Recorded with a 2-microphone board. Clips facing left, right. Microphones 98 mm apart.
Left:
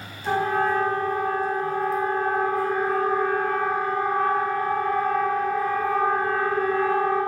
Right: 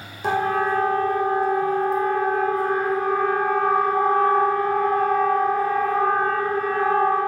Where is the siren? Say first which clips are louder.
Right 1 dB; 75° right (ahead or behind), 4.5 m; by 7.2 s 60° right (ahead or behind), 6 m.